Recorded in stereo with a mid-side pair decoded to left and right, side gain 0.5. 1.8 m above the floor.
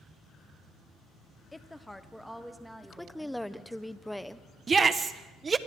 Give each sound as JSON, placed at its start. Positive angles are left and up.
{"t": 1.5, "sound": "a woman speaking", "azimuth_deg": 15, "distance_m": 1.0}
{"t": 2.8, "sound": "a woman speaking", "azimuth_deg": 5, "distance_m": 1.1}
{"t": 4.7, "sound": "a shout", "azimuth_deg": -35, "distance_m": 1.7}